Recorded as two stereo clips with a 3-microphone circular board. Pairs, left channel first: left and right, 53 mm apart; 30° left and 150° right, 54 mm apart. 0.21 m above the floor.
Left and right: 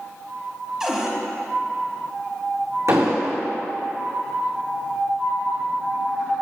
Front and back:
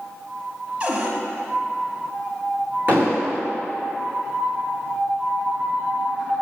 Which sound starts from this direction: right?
An explosion, at 2.9 s.